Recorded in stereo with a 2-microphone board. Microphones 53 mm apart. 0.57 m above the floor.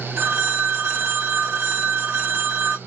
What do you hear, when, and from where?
0.2 s a phone ringing: 50° right (ahead or behind), 0.7 m